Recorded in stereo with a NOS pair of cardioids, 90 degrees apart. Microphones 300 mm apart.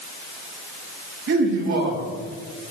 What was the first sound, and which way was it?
A man speaking, 65° right.